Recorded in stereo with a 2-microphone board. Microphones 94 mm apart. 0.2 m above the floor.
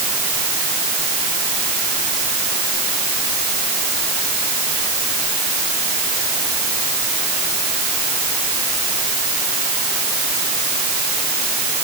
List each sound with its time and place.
Only background noise.